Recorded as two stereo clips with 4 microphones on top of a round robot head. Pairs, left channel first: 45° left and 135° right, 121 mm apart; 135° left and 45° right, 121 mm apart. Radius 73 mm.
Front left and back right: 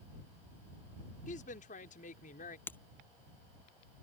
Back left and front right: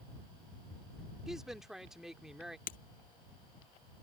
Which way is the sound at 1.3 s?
40° left.